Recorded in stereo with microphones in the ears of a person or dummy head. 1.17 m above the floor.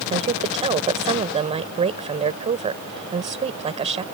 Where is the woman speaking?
30° right (ahead or behind).